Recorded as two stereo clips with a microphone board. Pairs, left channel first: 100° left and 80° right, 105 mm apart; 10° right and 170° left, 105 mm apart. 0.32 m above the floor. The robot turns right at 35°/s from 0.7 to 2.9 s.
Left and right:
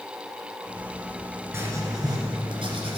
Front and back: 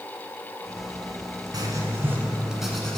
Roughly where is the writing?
Behind right.